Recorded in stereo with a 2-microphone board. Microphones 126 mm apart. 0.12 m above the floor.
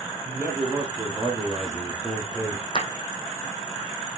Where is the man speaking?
15° right (ahead or behind), 4 m; by 2.6 s 25° left (ahead or behind), 3 m.